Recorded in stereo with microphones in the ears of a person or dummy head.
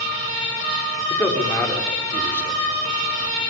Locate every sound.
1.1 s a man speaking: 10° left (ahead or behind), 6 m